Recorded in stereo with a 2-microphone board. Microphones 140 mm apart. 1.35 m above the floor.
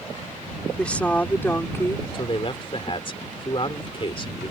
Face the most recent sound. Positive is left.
turn(degrees=40)  # may be behind; listen again after turning